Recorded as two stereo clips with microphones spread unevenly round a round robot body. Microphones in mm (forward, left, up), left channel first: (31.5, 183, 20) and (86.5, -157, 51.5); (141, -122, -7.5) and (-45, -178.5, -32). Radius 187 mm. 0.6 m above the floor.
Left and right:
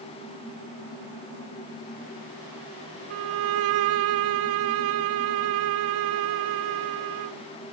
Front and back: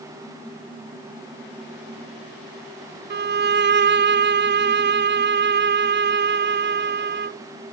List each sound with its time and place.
3.1 s a violin: 130° right, 0.6 m